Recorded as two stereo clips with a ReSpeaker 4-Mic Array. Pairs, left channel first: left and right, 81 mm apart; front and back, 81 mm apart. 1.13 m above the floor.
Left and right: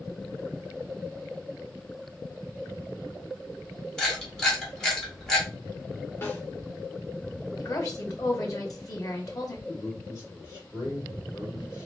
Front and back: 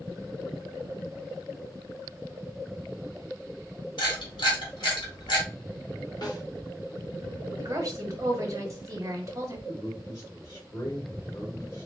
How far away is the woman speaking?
About 1.3 m.